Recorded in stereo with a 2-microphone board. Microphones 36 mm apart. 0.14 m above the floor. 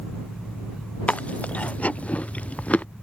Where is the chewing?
40° left (ahead or behind).